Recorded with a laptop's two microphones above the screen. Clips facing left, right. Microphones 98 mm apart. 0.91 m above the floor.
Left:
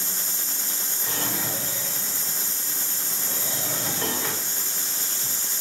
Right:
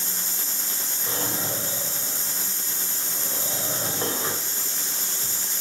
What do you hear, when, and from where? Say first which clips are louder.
1.1 s a drawer: right 1 dB; 30° right (ahead or behind), 2.5 m